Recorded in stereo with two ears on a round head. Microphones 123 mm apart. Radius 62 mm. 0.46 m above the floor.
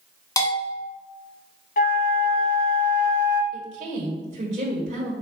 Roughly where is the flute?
Left.